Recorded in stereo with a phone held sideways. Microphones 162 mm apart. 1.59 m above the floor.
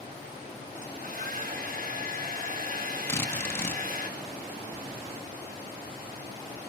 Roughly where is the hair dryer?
Right.